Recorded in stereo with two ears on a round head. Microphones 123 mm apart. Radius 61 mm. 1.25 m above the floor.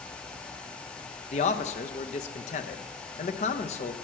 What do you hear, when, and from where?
1.3 s a man speaking: 50° left (ahead or behind), 0.8 m